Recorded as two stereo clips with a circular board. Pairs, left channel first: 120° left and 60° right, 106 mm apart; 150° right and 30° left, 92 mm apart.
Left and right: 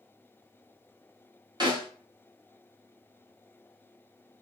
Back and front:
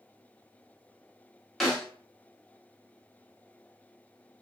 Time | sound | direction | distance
1.6 | a snare drum | 65° right | 1.1 m